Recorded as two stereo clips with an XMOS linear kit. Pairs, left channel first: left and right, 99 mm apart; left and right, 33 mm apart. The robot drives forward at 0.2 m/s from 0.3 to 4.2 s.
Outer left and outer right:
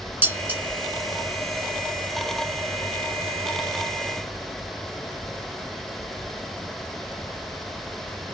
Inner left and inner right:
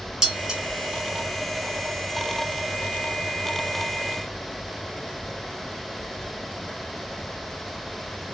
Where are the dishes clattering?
20° right (ahead or behind), 0.9 m.